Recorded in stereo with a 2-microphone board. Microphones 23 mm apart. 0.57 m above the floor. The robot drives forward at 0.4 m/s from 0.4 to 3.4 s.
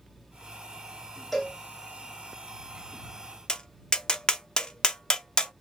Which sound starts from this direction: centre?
A cowbell, at 1.3 s.